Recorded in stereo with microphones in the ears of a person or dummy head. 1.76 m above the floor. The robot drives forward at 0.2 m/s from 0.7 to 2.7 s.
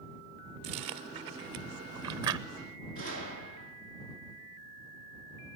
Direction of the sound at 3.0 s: 50° left (ahead or behind).